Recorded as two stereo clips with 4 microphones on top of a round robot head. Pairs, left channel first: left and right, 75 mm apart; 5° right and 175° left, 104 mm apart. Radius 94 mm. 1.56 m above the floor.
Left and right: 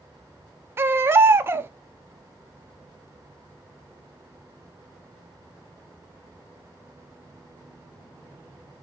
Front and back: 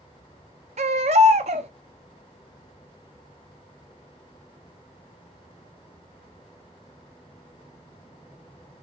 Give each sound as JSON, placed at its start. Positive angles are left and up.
{"t": 0.8, "sound": "a baby crying", "azimuth_deg": -145, "distance_m": 0.6}